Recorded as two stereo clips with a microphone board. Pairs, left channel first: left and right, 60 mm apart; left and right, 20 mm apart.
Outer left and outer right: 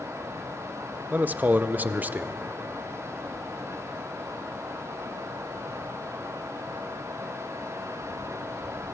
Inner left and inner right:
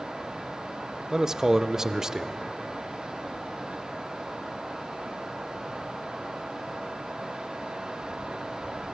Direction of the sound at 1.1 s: 30° right (ahead or behind).